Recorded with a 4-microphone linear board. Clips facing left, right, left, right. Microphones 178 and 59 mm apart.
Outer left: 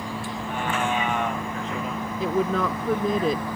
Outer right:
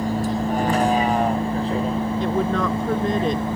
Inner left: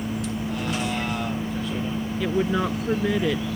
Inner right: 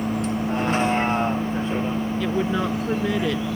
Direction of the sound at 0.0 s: 40° right (ahead or behind).